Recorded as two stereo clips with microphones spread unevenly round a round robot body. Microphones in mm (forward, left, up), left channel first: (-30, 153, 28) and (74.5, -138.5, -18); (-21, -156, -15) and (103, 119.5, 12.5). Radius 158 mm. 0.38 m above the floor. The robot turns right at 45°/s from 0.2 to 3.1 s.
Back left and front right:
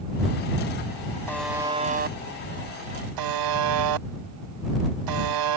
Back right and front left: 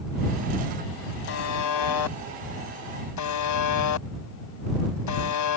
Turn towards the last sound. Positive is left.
turn(degrees=-85)